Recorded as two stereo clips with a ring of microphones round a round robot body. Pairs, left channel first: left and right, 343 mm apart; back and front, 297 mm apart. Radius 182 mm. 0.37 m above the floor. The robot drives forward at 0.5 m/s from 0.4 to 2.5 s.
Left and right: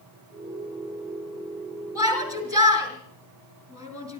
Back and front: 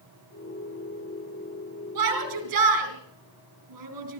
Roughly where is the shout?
Ahead.